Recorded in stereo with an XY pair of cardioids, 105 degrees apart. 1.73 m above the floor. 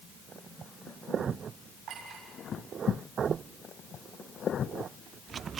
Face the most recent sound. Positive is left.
turn(degrees=-65)